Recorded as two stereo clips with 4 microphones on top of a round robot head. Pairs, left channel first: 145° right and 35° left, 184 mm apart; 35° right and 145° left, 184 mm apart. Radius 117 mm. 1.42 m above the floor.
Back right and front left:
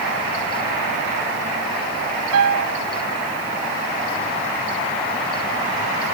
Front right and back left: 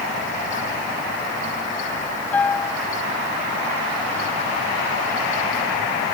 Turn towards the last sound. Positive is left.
turn(degrees=45)